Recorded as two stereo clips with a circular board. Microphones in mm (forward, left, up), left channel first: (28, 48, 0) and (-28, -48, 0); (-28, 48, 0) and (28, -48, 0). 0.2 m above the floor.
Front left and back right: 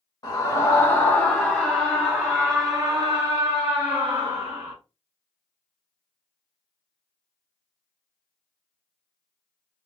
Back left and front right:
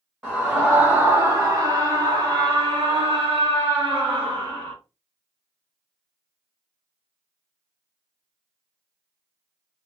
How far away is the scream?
About 1.3 m.